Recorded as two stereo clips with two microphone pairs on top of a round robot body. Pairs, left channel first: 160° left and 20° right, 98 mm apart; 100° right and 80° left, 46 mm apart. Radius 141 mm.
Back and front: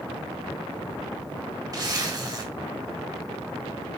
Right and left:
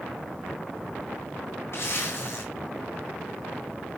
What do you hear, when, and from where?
1.7 s a zipper: 70° right, 4 m